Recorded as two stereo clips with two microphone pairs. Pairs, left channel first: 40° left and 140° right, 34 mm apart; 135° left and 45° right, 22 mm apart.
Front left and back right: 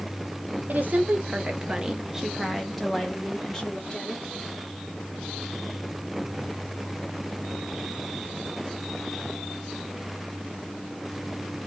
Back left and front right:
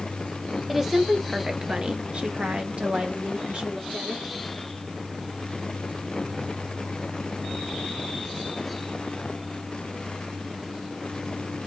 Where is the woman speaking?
130° right, 0.9 m; by 4.2 s 30° right, 1.9 m.